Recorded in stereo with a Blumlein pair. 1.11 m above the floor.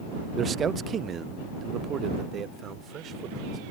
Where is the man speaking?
15° right; by 3.6 s 25° right.